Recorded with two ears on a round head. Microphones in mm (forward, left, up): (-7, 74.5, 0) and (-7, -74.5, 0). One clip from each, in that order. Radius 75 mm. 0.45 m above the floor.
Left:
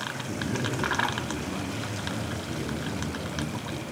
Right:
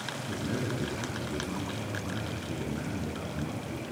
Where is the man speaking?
65° right (ahead or behind), 4 m.